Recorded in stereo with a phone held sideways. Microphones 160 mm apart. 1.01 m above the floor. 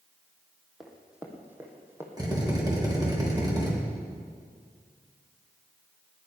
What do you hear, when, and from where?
0.8 s running footsteps: centre (ahead or behind), 2.5 m; by 2.1 s 15° right (ahead or behind), 3 m
2.2 s a drill: 25° right (ahead or behind), 3.5 m